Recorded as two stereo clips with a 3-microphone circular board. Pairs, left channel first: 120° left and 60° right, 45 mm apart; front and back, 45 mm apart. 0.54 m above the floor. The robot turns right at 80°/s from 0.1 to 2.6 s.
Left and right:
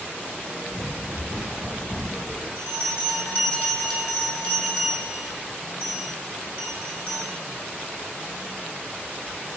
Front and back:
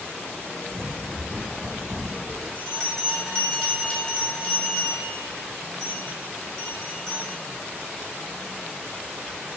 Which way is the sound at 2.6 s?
60° left.